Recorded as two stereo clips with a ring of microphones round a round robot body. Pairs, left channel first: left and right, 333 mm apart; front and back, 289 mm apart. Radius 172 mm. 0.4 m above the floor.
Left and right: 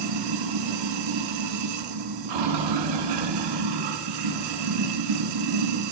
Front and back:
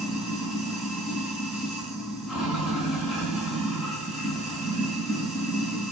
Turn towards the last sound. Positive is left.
turn(degrees=-90)